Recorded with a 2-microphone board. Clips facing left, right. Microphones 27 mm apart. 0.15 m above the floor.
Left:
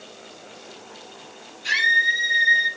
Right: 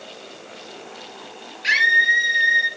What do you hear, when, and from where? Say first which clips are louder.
1.6 s a scream: right 3 dB; 50° right (ahead or behind), 3 m; by 2.7 s 25° right (ahead or behind), 3.5 m